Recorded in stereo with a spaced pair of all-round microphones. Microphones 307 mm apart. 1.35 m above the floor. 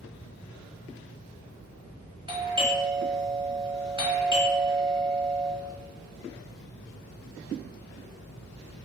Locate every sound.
2.3 s a doorbell: 15° right (ahead or behind), 1.0 m